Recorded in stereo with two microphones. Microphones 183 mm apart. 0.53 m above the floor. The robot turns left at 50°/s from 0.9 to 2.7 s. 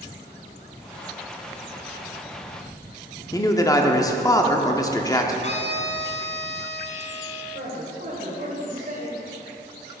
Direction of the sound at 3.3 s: 20° left (ahead or behind).